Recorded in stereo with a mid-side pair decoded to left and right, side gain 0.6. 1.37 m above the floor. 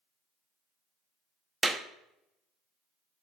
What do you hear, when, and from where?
1.6 s a clap: 15° right, 0.8 m